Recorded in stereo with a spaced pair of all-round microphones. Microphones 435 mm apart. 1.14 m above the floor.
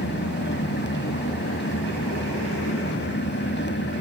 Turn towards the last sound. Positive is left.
turn(degrees=25)  # may be behind; listen again after turning